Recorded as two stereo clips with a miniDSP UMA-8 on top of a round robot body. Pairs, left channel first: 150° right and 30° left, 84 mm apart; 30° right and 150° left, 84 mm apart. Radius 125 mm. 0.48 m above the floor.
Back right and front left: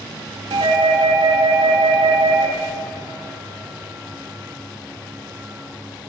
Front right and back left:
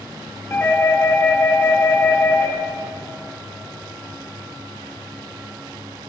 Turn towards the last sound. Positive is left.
turn(degrees=35)